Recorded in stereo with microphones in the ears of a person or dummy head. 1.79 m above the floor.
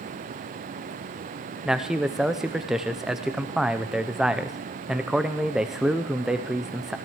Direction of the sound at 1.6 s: 5° right (ahead or behind).